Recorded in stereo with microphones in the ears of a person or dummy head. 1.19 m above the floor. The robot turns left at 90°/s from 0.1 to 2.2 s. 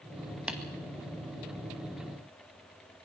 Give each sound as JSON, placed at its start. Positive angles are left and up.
{"t": 0.5, "sound": "tapping", "side_deg": -5, "distance_m": 2.0}